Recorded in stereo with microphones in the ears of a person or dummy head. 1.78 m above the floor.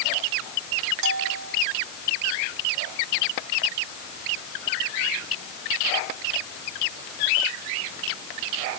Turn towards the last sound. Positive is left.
turn(degrees=-70)  # may be behind; listen again after turning